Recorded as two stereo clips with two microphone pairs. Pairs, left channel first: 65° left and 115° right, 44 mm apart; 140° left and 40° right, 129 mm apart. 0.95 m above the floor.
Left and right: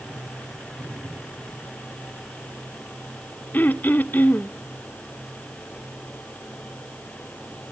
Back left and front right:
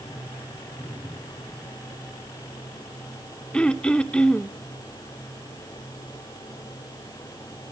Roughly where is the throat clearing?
Ahead left.